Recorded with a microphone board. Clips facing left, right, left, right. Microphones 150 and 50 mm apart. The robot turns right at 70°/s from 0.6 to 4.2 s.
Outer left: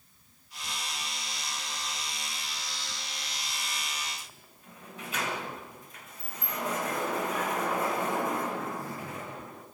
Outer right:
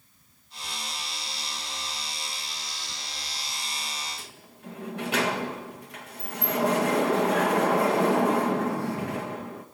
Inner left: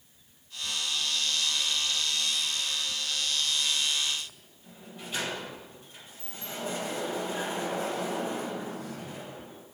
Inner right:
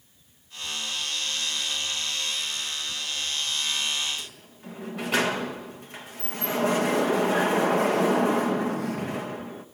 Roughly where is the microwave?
I don't hear a microwave.